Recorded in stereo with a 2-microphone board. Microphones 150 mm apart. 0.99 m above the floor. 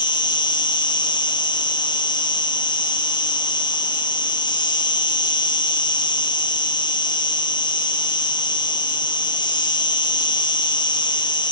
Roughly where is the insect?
Left.